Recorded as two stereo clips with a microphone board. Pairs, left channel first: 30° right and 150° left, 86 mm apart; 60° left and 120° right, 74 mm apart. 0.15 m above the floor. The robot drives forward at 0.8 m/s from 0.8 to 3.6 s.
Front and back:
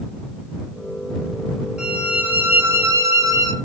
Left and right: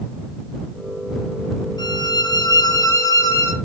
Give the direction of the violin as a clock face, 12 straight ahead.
10 o'clock.